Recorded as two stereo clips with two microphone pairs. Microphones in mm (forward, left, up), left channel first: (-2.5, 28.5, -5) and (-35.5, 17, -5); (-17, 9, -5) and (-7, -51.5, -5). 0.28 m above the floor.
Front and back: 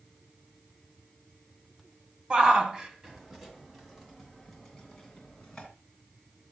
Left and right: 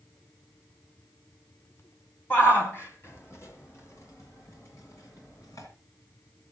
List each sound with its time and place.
2.3 s a shout: 145° left, 1.9 m; by 5.7 s 90° left, 3 m